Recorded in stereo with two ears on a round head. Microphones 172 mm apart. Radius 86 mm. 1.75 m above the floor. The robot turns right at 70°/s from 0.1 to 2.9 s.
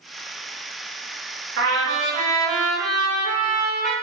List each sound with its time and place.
1.6 s a trumpet: 95° right, 1.2 m; by 3.9 s straight ahead, 1.2 m